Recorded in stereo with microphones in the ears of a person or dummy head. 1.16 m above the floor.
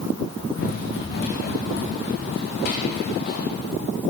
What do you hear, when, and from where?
0.6 s running footsteps: 70° left (ahead or behind), 3.5 m; by 3.5 s 50° left (ahead or behind), 2.5 m